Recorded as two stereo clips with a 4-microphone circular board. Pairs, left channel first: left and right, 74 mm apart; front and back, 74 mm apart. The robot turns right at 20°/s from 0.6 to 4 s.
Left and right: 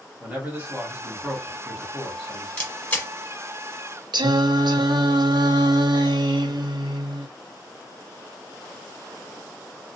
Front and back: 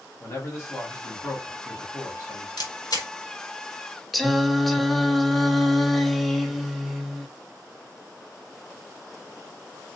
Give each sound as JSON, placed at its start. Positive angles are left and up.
{"t": 0.2, "sound": "a man speaking", "azimuth_deg": -35, "distance_m": 1.6}
{"t": 2.6, "sound": "a camera shutter", "azimuth_deg": 15, "distance_m": 1.0}
{"t": 4.1, "sound": "singing", "azimuth_deg": -90, "distance_m": 0.5}